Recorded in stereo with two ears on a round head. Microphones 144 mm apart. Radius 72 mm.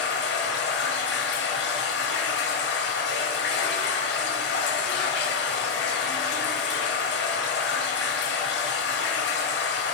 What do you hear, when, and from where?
0.0 s running water: 70° left (ahead or behind), 0.8 m